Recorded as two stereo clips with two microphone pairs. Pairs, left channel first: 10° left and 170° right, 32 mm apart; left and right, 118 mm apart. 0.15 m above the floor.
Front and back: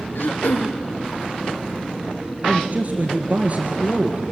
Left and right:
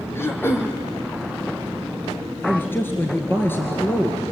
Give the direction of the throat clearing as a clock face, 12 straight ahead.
11 o'clock.